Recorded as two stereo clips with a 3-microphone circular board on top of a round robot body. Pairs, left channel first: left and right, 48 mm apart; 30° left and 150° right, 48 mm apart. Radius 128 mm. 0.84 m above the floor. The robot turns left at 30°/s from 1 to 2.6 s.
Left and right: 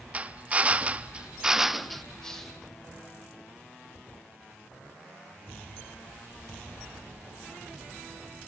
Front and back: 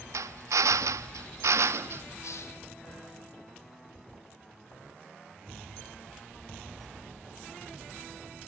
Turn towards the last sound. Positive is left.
turn(degrees=0)